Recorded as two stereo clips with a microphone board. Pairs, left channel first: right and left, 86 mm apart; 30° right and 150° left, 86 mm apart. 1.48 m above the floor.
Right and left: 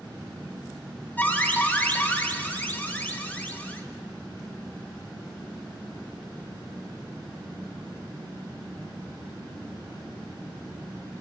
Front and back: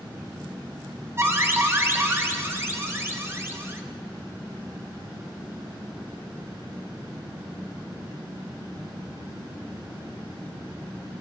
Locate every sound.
1.2 s an alarm: 155° right, 1.1 m